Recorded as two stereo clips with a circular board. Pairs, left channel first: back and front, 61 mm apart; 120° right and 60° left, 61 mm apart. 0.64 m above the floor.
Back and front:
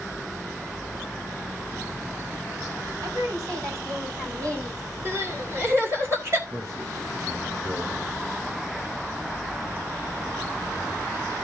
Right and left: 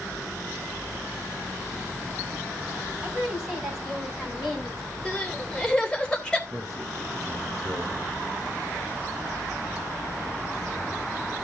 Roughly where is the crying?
Ahead right.